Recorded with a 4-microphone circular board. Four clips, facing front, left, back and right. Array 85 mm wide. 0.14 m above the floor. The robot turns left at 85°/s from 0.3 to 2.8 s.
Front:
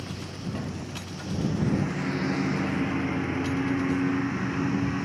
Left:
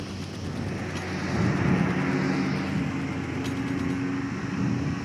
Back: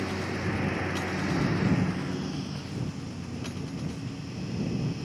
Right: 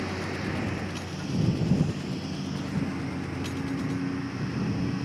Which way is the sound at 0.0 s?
140° right.